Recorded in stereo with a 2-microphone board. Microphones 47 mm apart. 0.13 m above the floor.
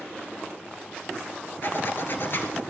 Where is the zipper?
50° left (ahead or behind), 2.0 m.